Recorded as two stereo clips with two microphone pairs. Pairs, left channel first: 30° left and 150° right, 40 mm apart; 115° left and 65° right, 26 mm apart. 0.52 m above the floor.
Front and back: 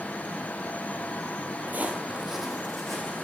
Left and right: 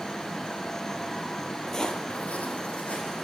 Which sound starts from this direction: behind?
Footsteps, at 1.7 s.